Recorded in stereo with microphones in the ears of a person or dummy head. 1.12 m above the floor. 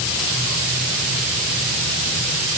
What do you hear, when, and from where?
Only background noise.